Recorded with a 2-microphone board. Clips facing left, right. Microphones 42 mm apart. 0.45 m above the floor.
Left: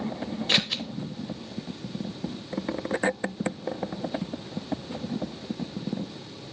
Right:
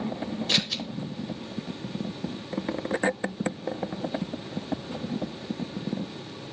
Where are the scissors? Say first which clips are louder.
Left 3 dB; 30° left (ahead or behind), 0.8 m.